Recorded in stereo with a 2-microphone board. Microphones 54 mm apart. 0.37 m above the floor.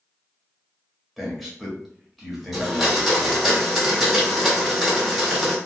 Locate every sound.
1.2 s a man speaking: centre (ahead or behind), 1.6 m
2.5 s a blender: centre (ahead or behind), 1.7 m